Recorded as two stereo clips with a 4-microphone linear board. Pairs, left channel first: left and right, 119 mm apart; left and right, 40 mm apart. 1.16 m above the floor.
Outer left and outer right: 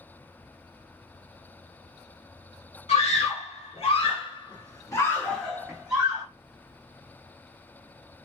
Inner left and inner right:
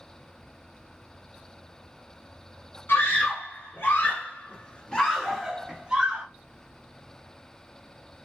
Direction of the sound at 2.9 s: 70° left (ahead or behind).